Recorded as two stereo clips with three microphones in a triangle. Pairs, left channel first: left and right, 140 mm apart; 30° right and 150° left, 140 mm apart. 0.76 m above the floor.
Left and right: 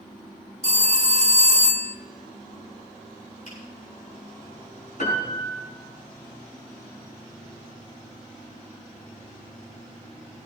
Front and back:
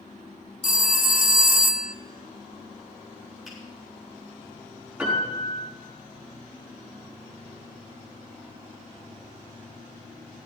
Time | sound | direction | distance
0.6 | a phone ringing | 50° right | 0.6 m
3.5 | a finger snap | 60° left | 8 m
5.0 | a piano | 70° left | 5 m